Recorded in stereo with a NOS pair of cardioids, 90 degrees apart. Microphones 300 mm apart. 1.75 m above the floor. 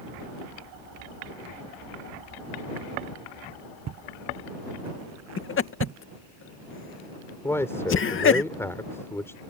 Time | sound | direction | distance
3.9 | footsteps | 65° right | ?
5.4 | laughter | 40° left | ?
7.4 | a man speaking | 10° left | ?